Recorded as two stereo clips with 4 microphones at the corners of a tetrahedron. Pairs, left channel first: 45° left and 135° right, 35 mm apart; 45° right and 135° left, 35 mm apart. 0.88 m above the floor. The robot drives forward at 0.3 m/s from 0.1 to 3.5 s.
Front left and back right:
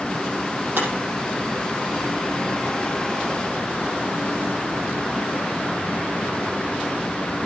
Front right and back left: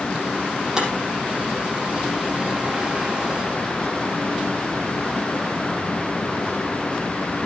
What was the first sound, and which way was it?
Breaking glass, 150° right.